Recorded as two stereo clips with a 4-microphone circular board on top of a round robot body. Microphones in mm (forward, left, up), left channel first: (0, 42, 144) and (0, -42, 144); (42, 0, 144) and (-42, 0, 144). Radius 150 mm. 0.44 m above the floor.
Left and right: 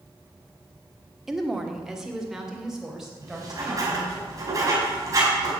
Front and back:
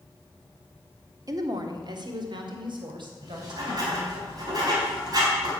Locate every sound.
1.3 s a woman speaking: 175° right, 1.6 m
3.2 s writing: 140° right, 4.5 m